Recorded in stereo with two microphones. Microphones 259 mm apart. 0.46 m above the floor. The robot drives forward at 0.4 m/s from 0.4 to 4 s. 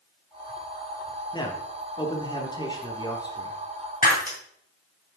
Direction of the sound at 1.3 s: 15° left (ahead or behind).